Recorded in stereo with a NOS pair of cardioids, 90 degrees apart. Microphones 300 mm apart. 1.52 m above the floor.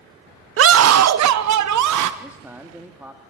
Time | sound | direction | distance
0.6 | a scream | 45° right | 0.8 m
2.2 | a man speaking | 5° right | 2.5 m